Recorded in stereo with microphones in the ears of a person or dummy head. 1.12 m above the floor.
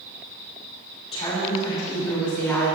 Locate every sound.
1.1 s a woman speaking: 35° left (ahead or behind), 2.5 m; by 2.7 s 10° left (ahead or behind), 2.5 m